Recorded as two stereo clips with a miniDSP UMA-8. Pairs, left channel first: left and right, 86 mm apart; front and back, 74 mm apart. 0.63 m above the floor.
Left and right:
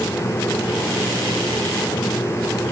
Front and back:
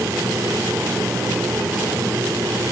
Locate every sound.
Only background noise.